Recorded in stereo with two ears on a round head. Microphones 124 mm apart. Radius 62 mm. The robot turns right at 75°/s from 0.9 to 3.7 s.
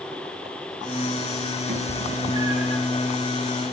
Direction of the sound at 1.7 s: 70° right (ahead or behind).